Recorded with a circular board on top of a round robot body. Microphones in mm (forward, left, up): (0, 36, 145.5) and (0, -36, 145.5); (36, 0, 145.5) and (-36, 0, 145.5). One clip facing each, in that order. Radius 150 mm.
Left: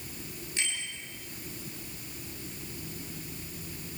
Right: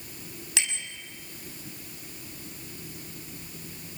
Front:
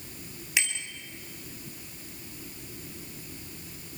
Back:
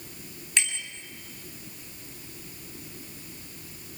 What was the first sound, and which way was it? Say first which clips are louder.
A bicycle bell: right 1 dB, even; 85° right.